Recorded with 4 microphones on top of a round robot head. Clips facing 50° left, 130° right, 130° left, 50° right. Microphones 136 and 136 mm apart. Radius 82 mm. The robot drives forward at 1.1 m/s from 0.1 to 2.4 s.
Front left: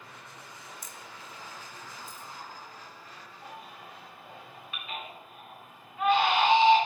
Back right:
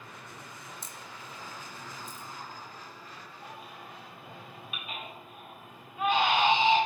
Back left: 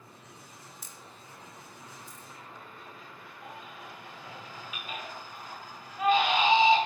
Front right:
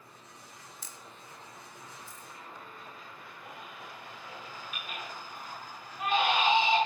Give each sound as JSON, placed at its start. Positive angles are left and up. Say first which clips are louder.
{"t": 0.8, "sound": "a camera shutter", "louder": "back right 1 dB, even", "azimuth_deg": -65, "distance_m": 0.6}
{"t": 3.4, "sound": "a baby crying", "louder": "front left 1 dB, back left 2 dB", "azimuth_deg": 155, "distance_m": 2.5}